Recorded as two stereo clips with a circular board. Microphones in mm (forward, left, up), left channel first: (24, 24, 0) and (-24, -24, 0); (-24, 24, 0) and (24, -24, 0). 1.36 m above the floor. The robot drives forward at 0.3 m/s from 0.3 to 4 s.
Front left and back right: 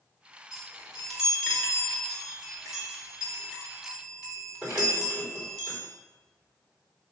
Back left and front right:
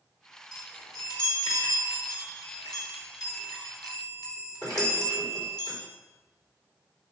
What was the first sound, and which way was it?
A chime, 135° left.